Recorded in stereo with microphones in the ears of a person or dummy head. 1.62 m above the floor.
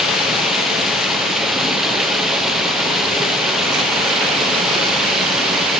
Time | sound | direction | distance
0.0 | running water | 5° right (ahead or behind) | 0.8 m